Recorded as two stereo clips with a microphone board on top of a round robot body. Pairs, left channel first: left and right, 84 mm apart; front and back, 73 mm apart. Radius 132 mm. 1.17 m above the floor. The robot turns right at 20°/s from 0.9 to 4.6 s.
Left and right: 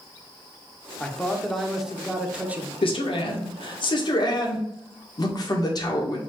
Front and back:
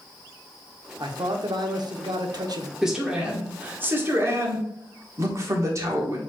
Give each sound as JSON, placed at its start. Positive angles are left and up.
{"t": 1.0, "sound": "a man speaking", "azimuth_deg": 170, "distance_m": 1.0}
{"t": 2.8, "sound": "a man speaking", "azimuth_deg": 95, "distance_m": 1.4}